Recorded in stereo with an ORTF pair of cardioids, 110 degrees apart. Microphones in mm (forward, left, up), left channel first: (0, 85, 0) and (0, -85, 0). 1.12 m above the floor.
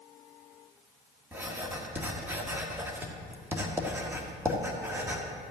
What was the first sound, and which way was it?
Writing, 15° right.